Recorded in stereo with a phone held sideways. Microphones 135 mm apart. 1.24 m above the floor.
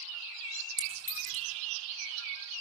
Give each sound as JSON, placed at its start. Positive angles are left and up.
{"t": 0.8, "sound": "a clink", "side_deg": -75, "distance_m": 8.0}